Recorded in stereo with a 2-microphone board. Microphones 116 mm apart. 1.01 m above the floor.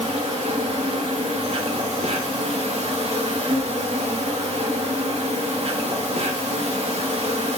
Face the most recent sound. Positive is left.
turn(degrees=-65)  # may be behind; listen again after turning